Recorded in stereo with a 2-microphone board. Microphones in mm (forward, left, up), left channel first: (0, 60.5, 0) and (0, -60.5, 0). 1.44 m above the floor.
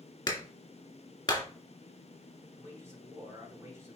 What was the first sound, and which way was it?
A clap, 30° left (ahead or behind).